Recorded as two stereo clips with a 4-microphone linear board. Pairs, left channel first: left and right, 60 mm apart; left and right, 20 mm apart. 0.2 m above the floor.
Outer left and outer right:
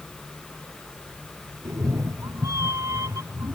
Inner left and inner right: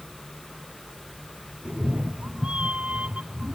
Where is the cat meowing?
65° right (ahead or behind).